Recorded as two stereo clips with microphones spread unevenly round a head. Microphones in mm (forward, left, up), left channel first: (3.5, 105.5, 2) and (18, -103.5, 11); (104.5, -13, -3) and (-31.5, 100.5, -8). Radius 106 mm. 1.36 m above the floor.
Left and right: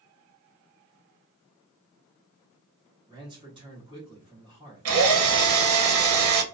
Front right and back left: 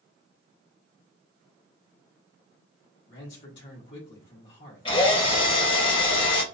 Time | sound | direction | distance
3.1 | a man speaking | 20° right | 1.2 m
4.8 | a drill | 110° right | 0.8 m